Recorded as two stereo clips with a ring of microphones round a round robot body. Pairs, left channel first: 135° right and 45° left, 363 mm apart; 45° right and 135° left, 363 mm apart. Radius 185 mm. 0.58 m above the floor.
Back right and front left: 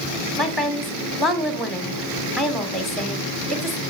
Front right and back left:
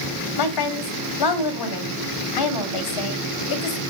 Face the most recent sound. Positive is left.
turn(degrees=-45)